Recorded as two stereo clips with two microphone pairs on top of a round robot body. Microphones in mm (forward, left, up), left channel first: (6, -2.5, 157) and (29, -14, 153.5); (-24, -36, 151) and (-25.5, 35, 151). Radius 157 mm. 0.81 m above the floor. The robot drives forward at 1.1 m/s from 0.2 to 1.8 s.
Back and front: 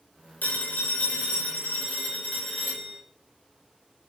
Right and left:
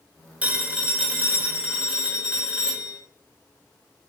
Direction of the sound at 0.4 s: 165° left.